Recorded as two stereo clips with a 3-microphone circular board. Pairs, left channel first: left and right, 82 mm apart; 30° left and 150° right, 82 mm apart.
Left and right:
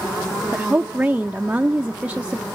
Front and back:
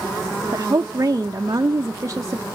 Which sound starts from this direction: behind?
A woman speaking, at 0.5 s.